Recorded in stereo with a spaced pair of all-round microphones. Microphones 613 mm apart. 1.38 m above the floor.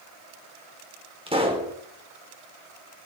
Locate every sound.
1.3 s a pop: 10° right (ahead or behind), 4 m